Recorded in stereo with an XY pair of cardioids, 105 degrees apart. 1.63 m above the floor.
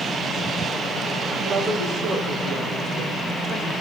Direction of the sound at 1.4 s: 45° right.